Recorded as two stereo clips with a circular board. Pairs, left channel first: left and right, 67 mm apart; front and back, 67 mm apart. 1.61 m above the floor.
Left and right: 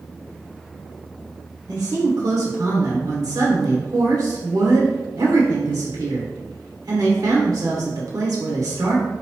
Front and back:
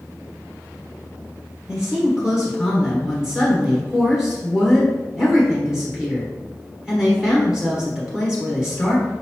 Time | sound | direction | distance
1.7 | a woman speaking | 100° right | 1.2 m